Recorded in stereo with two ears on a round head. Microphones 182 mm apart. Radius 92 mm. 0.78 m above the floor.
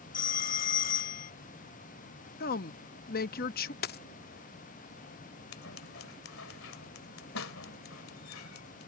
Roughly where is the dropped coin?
Left.